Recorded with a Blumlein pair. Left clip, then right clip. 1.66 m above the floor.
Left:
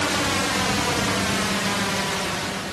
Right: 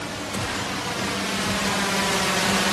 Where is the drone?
30° left; by 2.7 s 30° right.